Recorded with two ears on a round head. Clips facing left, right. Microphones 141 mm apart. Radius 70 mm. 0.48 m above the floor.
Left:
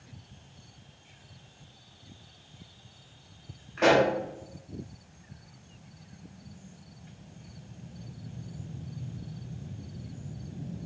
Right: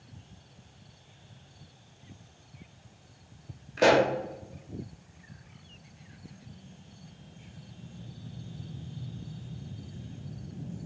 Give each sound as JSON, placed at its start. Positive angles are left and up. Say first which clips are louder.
{"t": 3.8, "sound": "a pop", "louder": "even", "side_deg": -40, "distance_m": 0.7}